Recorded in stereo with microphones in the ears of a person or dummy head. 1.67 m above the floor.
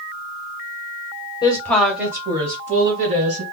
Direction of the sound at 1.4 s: 25° left (ahead or behind).